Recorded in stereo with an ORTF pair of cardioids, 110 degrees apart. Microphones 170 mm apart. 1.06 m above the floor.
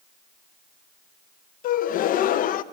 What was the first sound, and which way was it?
A gasp, 55° left.